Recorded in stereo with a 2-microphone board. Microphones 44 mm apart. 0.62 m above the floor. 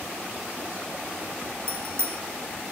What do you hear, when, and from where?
1.7 s a bicycle bell: 65° right (ahead or behind), 4.5 m